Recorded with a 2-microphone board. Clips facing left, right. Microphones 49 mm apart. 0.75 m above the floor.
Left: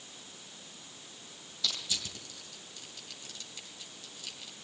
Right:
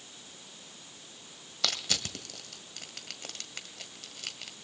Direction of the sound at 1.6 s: 65° right (ahead or behind).